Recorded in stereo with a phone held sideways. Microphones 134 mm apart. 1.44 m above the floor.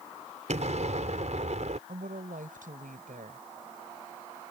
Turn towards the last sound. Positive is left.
turn(degrees=-85)